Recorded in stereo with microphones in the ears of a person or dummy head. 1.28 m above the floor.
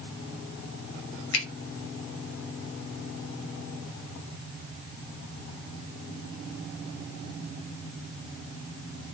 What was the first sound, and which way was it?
A finger snap, 80° left.